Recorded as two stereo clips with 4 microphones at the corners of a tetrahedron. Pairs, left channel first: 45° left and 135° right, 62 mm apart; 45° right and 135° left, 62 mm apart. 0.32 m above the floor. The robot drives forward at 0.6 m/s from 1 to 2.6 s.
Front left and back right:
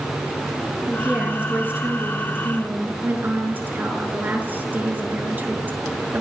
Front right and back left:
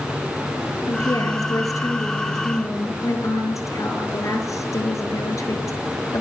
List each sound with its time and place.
0.9 s a woman speaking: 65° right, 5.5 m; by 6.2 s 75° right, 5 m